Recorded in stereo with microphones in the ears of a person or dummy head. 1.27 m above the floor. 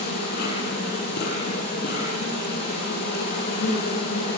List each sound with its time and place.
0.0 s an insect: 60° left (ahead or behind), 7.5 m